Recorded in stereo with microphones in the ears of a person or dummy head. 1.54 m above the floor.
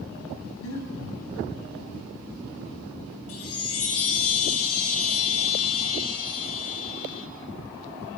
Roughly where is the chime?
Left.